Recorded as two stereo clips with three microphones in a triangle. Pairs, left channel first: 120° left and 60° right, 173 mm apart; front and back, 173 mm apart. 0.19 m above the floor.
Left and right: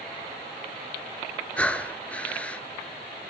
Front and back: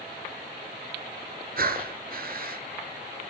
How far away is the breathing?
About 0.7 m.